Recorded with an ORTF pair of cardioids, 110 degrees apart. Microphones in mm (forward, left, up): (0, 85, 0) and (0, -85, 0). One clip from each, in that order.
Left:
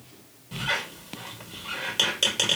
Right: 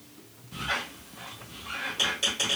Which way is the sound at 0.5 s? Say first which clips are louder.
Left 3 dB; 70° left.